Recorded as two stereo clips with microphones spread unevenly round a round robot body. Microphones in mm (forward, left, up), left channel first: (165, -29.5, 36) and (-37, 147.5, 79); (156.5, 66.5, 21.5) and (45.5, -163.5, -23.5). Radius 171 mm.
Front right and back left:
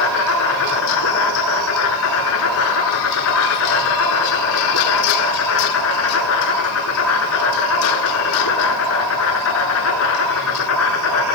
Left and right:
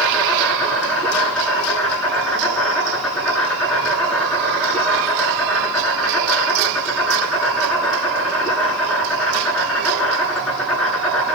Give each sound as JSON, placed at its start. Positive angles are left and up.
{"t": 0.0, "sound": "an insect", "azimuth_deg": -25, "distance_m": 9.5}